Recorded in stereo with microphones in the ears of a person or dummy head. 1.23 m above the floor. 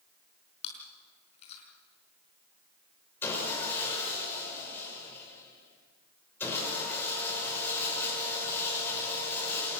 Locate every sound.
0.6 s chewing: 40° left (ahead or behind), 5.5 m
3.2 s sawing: 10° left (ahead or behind), 6 m